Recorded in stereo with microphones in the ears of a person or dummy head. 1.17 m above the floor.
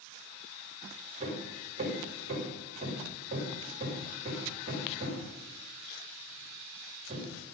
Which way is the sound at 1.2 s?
35° right (ahead or behind).